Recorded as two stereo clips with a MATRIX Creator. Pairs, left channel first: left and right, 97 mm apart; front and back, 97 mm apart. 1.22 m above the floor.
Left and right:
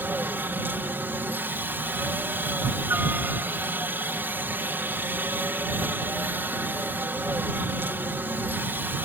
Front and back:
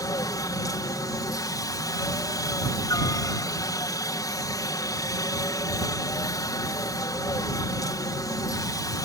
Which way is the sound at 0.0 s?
30° right.